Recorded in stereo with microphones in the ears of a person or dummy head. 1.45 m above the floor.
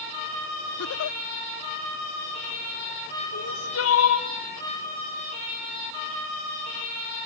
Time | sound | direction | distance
0.8 | a giggle | 85° left | 0.6 m
3.3 | crying | 85° left | 3 m